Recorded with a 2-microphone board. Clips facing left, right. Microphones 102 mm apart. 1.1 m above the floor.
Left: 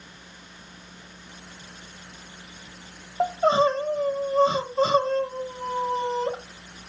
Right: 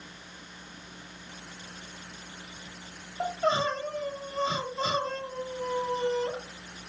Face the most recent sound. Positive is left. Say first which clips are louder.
# left 7 dB
turn(degrees=35)  # may be behind; listen again after turning